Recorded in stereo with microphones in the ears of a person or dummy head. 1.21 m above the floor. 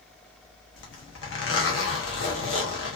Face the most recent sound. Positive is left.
turn(degrees=60)  # may be behind; listen again after turning